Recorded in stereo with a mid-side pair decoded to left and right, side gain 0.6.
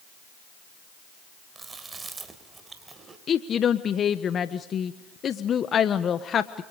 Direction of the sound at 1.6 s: 20° right.